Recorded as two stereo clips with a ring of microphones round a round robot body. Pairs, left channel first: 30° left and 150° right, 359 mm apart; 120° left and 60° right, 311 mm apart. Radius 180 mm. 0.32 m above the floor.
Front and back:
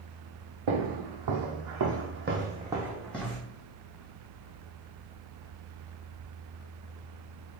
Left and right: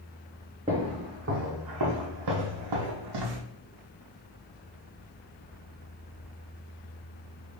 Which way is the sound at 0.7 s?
135° right.